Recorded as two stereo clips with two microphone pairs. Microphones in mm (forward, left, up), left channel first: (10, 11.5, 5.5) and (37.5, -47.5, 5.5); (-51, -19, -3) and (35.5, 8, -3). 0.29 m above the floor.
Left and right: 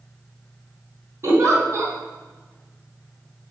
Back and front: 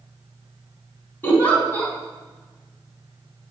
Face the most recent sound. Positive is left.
turn(degrees=-95)